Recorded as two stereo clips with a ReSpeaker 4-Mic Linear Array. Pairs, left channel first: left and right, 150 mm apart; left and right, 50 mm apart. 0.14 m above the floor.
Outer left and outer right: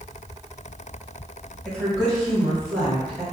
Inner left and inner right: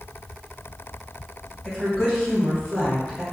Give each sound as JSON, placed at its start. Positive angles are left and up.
{"t": 1.6, "sound": "a woman speaking", "side_deg": 5, "distance_m": 1.9}